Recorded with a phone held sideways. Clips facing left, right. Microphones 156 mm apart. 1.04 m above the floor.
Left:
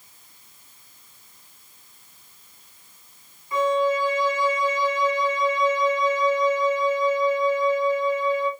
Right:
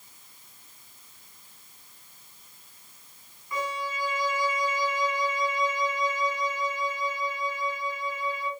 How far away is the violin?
About 2.0 m.